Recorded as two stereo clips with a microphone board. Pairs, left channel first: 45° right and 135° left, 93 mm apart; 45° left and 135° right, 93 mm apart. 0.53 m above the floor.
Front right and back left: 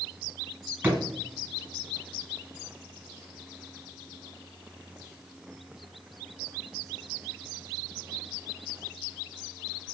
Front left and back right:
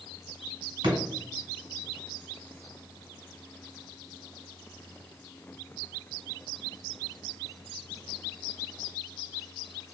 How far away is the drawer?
About 1.0 m.